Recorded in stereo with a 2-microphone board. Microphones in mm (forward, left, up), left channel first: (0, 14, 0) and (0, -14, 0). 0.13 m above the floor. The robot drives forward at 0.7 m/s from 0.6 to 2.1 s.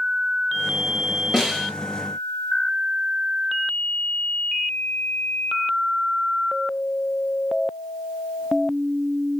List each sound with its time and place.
1.3 s a snare drum: 20° right (ahead or behind), 2.5 m; by 1.7 s 15° right (ahead or behind), 2.5 m